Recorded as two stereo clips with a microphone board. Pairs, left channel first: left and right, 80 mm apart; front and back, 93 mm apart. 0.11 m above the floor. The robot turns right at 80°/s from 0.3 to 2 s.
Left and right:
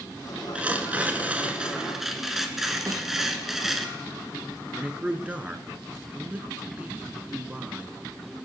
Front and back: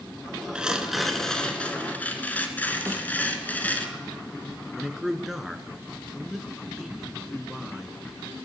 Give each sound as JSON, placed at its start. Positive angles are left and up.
{"t": 0.6, "sound": "tearing paper", "azimuth_deg": -125, "distance_m": 1.3}
{"t": 2.9, "sound": "a snare drum", "azimuth_deg": -125, "distance_m": 2.5}
{"t": 4.7, "sound": "a man speaking", "azimuth_deg": -100, "distance_m": 1.1}